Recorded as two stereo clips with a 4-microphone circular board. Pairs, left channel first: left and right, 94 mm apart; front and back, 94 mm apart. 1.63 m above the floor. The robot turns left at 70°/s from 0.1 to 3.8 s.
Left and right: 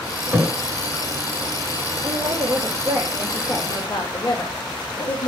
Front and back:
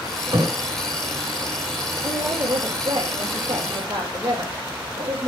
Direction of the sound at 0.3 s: 145° right.